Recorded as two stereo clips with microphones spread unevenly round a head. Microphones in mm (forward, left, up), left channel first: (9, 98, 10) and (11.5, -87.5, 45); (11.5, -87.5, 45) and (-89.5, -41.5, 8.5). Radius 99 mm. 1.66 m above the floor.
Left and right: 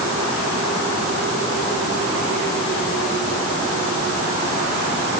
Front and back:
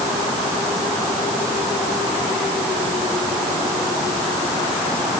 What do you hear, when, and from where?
Only background noise.